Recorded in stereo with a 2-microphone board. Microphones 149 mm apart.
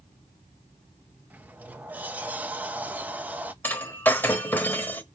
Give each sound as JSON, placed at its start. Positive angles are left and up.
{"t": 1.3, "sound": "a sliding door", "side_deg": -10, "distance_m": 0.7}
{"t": 3.6, "sound": "breaking glass", "side_deg": 15, "distance_m": 1.1}